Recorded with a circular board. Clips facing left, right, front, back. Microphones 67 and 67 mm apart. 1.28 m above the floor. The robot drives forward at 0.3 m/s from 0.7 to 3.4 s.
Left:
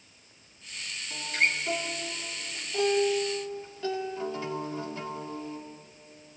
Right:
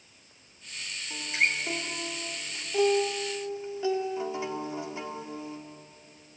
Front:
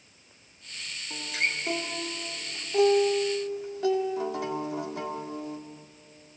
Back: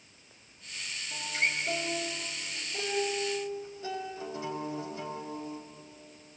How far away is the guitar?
About 3 m.